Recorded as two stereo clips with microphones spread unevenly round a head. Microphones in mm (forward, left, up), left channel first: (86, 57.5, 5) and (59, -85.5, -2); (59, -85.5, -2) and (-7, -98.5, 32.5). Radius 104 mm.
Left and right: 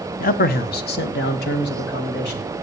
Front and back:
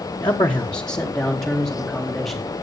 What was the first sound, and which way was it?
A man speaking, 55° left.